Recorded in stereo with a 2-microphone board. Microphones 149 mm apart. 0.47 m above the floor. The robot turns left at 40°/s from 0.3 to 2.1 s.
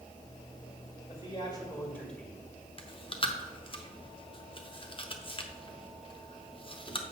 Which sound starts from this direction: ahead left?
A man speaking, at 1.1 s.